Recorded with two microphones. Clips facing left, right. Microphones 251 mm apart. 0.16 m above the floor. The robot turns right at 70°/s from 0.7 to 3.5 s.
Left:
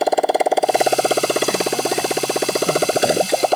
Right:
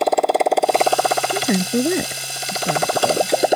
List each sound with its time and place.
0.0 s a motorcycle: 5° left (ahead or behind); by 3.6 s 10° right (ahead or behind)
1.3 s a woman speaking: 115° right; by 3.4 s 30° left